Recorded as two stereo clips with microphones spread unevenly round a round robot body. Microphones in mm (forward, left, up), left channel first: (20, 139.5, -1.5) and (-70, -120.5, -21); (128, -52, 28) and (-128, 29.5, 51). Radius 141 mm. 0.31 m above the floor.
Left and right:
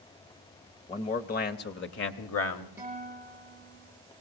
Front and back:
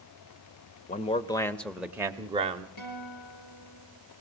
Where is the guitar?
25° right, 6.5 m.